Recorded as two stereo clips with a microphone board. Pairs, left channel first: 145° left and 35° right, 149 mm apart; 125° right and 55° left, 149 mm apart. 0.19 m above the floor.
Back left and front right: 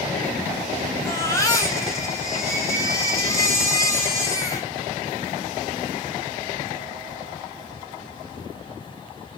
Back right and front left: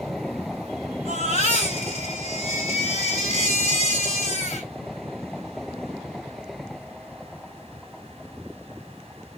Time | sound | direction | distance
1.1 | a baby crying | 150° right | 1.8 m